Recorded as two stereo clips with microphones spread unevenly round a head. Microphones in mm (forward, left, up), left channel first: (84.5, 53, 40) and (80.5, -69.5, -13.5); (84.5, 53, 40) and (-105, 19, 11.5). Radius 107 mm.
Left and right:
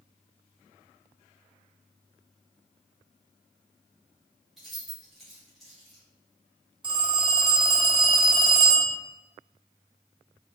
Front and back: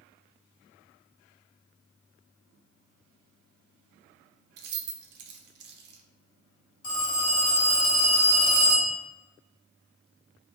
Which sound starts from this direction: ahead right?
A phone ringing, at 6.8 s.